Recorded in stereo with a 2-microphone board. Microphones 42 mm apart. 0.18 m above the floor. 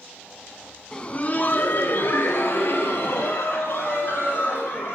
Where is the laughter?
20° left (ahead or behind), 1.2 m; by 5.0 s 80° left, 6 m.